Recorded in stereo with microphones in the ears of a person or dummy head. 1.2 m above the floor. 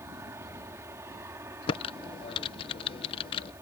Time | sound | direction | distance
0.0 | an aircraft | 15° right (ahead or behind) | ?
1.7 | typing on a keyboard | 30° left (ahead or behind) | ?